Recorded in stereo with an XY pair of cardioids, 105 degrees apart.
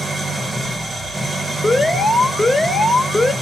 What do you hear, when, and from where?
0.0 s an engine running: 20° right, 1.2 m
1.6 s an alarm: 10° left, 1.0 m